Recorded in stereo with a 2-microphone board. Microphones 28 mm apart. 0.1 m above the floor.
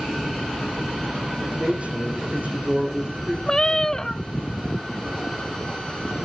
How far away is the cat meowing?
About 0.6 m.